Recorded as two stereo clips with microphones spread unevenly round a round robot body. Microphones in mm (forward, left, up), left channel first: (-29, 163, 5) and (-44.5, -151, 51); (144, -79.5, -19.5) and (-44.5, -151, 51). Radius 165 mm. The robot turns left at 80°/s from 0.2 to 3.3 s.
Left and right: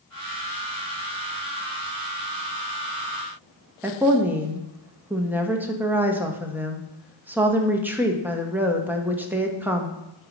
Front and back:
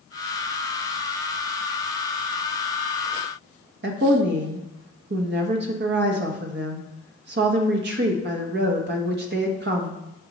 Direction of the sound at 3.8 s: 175° left.